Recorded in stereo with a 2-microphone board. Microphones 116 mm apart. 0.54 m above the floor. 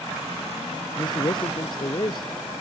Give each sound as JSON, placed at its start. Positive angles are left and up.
{"t": 1.0, "sound": "a man speaking", "side_deg": 40}